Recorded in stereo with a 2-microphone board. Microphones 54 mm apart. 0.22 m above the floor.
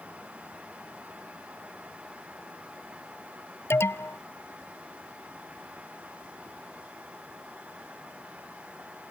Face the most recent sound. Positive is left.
turn(degrees=50)  # may be behind; listen again after turning